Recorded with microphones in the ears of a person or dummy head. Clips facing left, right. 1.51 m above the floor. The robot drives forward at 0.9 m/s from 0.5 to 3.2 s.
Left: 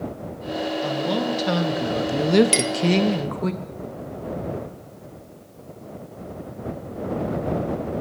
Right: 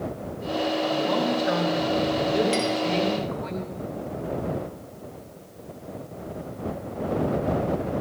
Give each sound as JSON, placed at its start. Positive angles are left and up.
{"t": 0.8, "sound": "a woman speaking", "side_deg": 35, "distance_m": 1.9}
{"t": 2.5, "sound": "a clink", "side_deg": 60, "distance_m": 0.7}